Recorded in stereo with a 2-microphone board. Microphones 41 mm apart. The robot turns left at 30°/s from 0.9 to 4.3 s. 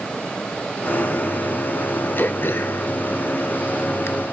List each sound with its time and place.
2.2 s throat clearing: 50° left (ahead or behind), 1.3 m; by 4.1 s 70° left (ahead or behind), 1.3 m